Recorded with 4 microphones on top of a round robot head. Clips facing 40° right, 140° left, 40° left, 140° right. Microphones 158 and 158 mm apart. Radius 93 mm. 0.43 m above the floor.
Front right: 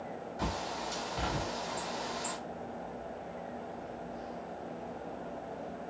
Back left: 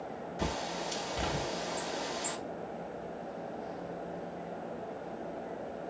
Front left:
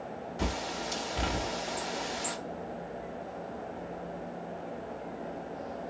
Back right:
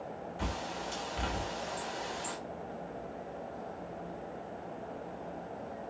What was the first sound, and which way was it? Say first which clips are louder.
A bird: back left 1 dB, front left 5 dB; 75° left.